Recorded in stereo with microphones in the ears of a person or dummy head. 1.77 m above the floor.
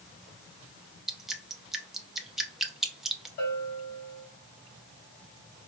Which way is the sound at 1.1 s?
Centre (ahead or behind).